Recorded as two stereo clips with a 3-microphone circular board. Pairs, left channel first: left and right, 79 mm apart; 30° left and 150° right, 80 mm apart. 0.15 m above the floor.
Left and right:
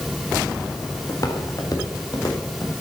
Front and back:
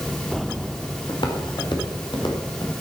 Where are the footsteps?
45° left, 4 m; by 2.7 s 50° left, 5 m.